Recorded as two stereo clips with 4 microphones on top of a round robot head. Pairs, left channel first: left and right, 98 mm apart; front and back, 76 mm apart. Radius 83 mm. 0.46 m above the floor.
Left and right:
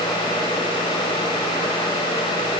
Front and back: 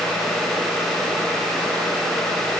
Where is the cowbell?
I don't hear a cowbell.